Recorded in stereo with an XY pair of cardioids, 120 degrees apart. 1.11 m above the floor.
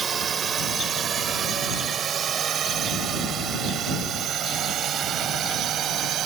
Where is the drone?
40° right; by 6.3 s 55° right.